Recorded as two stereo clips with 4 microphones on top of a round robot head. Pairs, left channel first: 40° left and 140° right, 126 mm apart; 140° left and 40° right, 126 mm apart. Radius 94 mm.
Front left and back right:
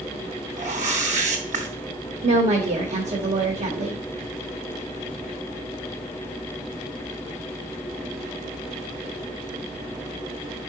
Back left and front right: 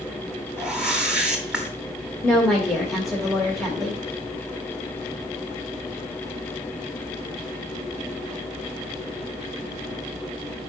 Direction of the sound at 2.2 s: 140° right.